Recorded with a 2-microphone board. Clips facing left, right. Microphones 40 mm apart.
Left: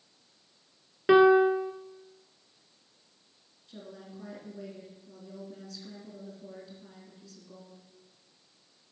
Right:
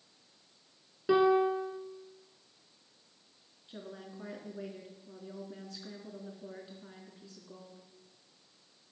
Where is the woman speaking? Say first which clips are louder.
Even; 25° right (ahead or behind), 3 m.